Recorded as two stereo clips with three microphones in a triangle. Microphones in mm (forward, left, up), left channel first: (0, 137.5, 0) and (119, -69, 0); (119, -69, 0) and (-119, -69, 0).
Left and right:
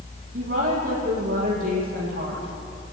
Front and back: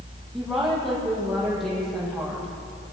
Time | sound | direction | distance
0.3 | a woman speaking | 90° right | 10 m